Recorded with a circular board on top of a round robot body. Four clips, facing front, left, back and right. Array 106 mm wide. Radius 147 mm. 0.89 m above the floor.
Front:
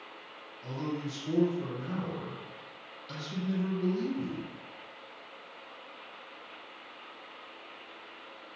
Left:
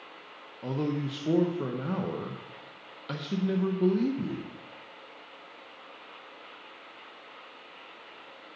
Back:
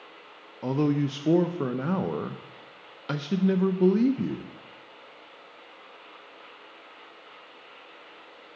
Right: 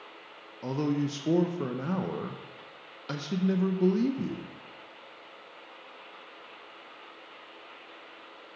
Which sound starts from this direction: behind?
A man speaking, at 0.6 s.